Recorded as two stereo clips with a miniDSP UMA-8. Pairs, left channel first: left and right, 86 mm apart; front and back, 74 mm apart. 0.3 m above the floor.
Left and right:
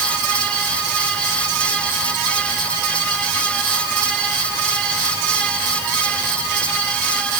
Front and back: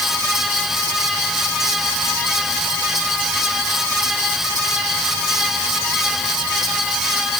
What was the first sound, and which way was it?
Only background noise.